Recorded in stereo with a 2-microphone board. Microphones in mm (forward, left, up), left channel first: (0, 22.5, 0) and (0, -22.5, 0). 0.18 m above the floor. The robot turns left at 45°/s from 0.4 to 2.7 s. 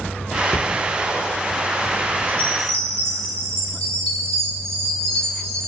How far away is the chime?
About 2 m.